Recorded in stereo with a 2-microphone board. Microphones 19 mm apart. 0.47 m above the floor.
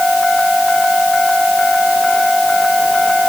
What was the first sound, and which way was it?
Only background noise.